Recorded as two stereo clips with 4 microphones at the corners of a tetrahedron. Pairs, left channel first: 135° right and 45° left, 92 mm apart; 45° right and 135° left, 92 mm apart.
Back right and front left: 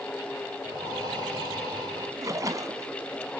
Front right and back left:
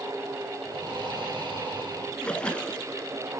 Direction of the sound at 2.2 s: 25° left.